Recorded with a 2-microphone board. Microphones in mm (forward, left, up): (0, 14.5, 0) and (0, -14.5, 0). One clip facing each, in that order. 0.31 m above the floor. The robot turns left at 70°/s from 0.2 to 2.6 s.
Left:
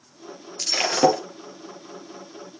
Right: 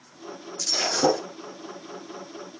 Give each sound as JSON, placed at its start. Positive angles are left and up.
{"t": 0.6, "sound": "breaking glass", "azimuth_deg": 135, "distance_m": 4.0}